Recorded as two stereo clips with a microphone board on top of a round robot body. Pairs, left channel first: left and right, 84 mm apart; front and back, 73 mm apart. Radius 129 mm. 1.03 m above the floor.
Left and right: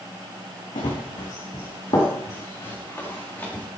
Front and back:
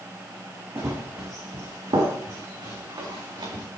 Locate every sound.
0.8 s running footsteps: 115° left, 3 m; by 3.6 s 155° left, 5.5 m